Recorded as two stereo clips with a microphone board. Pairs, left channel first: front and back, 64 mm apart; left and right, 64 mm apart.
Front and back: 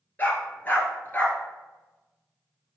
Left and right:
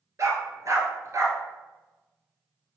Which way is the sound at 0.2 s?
60° right.